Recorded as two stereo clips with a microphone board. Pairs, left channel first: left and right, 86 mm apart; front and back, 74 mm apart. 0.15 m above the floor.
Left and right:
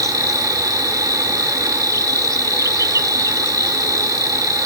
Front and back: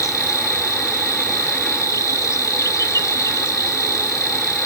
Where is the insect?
45° right, 0.8 m.